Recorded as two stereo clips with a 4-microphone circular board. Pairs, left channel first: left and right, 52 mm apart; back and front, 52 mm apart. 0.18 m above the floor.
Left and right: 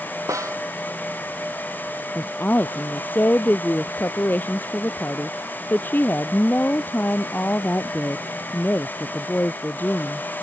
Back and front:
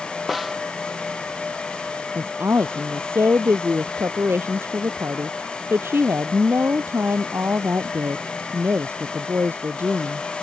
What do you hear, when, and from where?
0.3 s a snare drum: 85° right
2.1 s a woman speaking: 40° left